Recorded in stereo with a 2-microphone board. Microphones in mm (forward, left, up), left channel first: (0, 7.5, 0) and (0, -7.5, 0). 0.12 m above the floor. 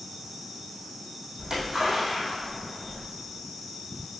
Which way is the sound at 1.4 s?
40° right (ahead or behind).